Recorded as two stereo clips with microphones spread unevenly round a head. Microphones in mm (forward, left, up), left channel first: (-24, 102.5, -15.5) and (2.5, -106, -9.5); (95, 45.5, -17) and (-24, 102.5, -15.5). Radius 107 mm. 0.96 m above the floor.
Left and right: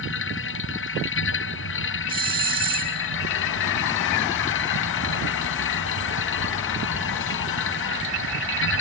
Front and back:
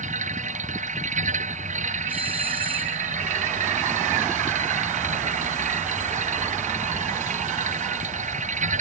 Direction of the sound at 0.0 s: 130° left.